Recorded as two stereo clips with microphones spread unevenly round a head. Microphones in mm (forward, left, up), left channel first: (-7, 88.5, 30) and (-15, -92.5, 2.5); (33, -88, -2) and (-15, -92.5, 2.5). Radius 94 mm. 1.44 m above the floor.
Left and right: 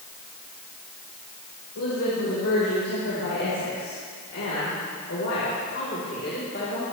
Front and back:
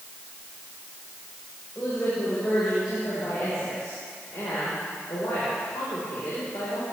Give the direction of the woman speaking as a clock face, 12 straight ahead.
9 o'clock.